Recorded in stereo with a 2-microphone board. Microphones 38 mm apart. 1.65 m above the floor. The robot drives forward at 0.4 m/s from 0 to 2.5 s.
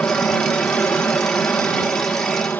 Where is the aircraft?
55° left (ahead or behind); by 2.6 s 60° left (ahead or behind).